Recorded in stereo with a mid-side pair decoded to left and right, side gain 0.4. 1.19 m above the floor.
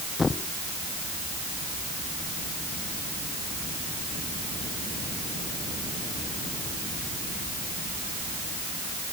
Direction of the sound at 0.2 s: 30° left.